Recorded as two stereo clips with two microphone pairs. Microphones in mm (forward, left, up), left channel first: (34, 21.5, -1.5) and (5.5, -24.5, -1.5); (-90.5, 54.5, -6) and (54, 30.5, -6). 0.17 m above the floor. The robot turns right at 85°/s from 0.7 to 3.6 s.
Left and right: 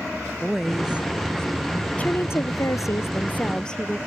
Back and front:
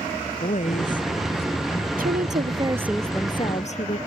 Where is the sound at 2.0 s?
5° right; by 4.0 s 135° left.